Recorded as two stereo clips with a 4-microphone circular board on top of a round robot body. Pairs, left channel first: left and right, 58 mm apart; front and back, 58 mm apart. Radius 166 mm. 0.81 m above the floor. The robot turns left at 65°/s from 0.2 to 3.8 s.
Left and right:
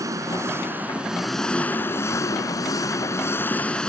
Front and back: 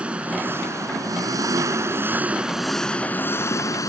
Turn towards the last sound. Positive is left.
turn(degrees=15)